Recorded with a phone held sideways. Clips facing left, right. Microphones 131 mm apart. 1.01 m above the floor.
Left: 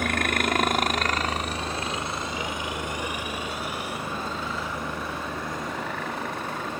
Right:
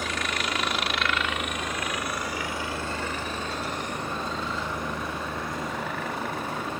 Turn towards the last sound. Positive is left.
turn(degrees=-5)  # may be behind; listen again after turning